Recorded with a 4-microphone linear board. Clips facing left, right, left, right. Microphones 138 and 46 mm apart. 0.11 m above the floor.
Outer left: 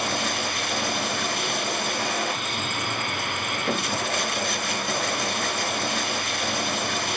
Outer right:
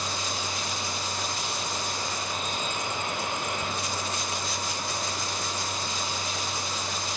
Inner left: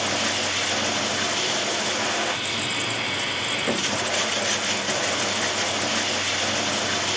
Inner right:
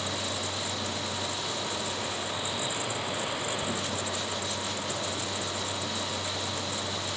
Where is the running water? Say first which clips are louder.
Outer left 6 dB, inner left 8 dB; 65° left (ahead or behind).